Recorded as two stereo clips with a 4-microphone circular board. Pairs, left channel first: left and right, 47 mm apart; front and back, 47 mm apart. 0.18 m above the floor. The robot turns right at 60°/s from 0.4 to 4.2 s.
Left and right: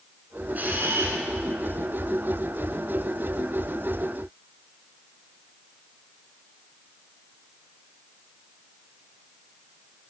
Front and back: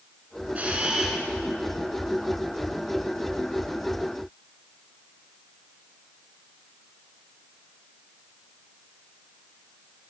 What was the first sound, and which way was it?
A camera shutter, 130° right.